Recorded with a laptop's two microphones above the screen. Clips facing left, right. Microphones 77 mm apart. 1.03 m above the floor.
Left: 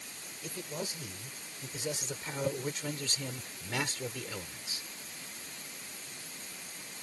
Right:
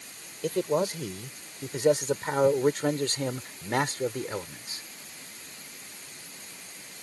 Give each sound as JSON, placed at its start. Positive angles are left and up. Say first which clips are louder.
{"t": 0.4, "sound": "a man speaking", "louder": "right 14 dB", "side_deg": -70}